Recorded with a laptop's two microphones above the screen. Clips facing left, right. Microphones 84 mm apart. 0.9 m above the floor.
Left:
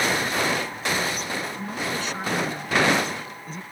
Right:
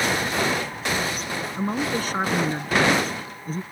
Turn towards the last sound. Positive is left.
turn(degrees=-40)  # may be behind; listen again after turning